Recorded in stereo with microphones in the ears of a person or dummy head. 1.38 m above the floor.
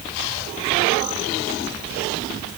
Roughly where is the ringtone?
I don't hear a ringtone.